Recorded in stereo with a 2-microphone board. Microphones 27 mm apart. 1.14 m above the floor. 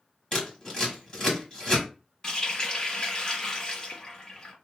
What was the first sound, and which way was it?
Scissors, 25° left (ahead or behind).